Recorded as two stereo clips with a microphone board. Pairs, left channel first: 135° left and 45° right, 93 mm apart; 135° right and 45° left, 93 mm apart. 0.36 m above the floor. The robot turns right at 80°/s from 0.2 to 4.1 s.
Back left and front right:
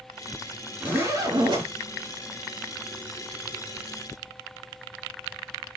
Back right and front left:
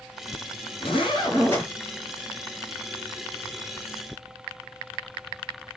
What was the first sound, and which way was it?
A zipper, 125° right.